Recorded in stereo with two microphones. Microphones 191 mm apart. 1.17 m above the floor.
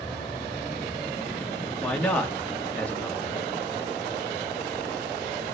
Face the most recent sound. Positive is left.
turn(degrees=5)  # may be behind; listen again after turning